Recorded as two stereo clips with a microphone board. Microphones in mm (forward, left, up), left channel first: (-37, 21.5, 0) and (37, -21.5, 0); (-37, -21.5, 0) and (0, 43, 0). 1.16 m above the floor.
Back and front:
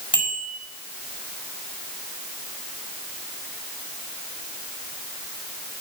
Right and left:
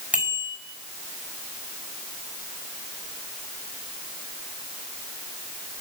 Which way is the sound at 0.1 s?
130° left.